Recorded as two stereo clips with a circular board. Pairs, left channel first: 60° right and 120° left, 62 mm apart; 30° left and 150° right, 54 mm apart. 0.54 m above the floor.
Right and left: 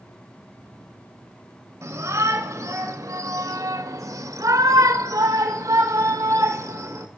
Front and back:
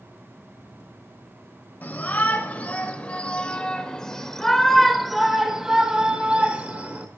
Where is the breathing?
I don't hear breathing.